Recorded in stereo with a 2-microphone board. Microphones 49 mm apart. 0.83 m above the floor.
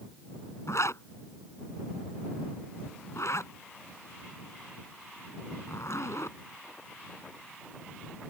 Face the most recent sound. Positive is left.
turn(degrees=75)  # may be behind; listen again after turning